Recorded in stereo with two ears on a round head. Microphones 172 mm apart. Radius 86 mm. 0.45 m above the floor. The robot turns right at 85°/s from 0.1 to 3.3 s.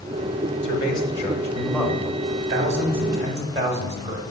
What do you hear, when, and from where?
0.6 s a man speaking: 30° left (ahead or behind), 0.8 m; by 4.2 s 15° right (ahead or behind), 0.8 m